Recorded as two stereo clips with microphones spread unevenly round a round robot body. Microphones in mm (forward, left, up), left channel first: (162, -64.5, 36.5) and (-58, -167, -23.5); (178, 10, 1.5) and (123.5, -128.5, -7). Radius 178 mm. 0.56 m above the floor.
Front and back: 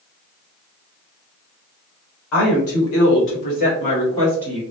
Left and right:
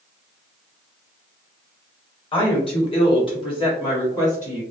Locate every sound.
2.3 s a woman speaking: 20° left, 1.5 m; by 4.6 s 130° left, 1.2 m